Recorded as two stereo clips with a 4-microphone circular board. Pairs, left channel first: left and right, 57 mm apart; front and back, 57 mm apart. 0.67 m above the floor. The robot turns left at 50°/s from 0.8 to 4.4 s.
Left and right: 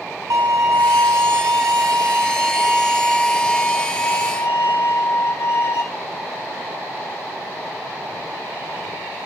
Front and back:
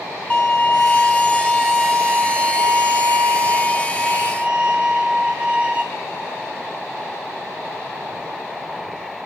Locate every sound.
0.3 s a violin: 70° right, 1.0 m; by 5.8 s 110° left, 1.0 m